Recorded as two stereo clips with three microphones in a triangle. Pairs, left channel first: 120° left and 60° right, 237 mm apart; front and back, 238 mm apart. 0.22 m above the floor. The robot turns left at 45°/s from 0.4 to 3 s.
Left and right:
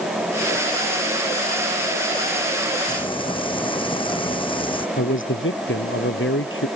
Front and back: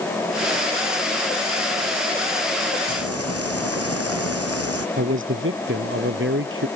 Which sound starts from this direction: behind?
Frying, at 2.9 s.